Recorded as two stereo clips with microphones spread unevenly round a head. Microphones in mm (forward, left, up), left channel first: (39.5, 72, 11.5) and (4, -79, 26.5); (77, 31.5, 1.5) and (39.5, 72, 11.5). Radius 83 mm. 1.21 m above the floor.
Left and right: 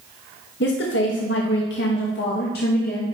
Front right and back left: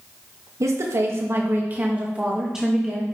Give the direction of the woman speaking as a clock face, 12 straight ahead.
9 o'clock.